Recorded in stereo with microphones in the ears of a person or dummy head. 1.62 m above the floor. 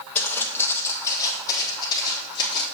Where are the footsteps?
15° left (ahead or behind), 2.5 m; by 2.6 s 25° left (ahead or behind), 5.5 m.